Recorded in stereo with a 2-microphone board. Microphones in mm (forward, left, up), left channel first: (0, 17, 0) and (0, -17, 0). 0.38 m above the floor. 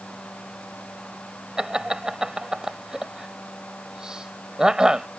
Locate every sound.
1.6 s laughter: 25° right (ahead or behind)